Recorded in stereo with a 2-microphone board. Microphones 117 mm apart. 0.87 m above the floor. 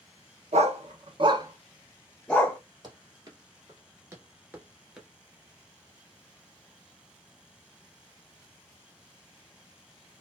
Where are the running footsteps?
35° right (ahead or behind), 1.3 m; by 5.1 s 5° right (ahead or behind), 0.9 m.